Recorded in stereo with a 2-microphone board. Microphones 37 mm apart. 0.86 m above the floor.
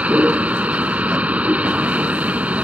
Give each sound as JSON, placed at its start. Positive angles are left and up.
{"t": 0.0, "sound": "a vehicle", "side_deg": -40}